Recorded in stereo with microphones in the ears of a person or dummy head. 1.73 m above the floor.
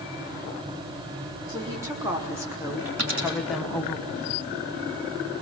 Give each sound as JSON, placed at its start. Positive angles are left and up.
{"t": 1.5, "sound": "a woman speaking", "side_deg": -20, "distance_m": 4.0}
{"t": 3.0, "sound": "a dropped coin", "side_deg": -60, "distance_m": 6.5}